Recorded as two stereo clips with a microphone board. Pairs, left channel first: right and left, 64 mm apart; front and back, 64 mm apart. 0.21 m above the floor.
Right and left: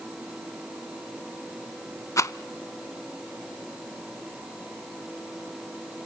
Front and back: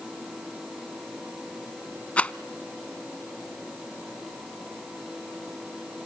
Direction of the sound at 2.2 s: 65° right.